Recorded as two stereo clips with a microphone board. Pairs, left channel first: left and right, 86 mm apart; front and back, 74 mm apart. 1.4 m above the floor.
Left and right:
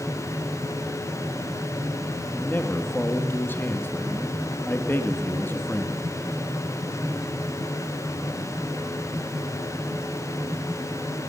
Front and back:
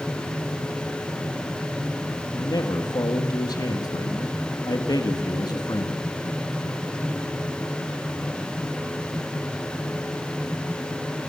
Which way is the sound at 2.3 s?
25° left.